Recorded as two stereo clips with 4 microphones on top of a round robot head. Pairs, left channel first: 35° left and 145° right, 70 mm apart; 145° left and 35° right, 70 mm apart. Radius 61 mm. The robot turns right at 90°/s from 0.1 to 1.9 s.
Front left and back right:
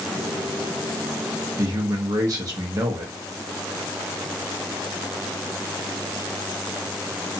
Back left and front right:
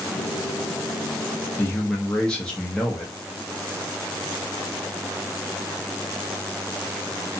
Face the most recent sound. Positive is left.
turn(degrees=-135)